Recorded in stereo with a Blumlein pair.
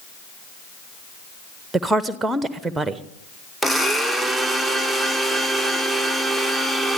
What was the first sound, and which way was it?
A woman speaking, 10° right.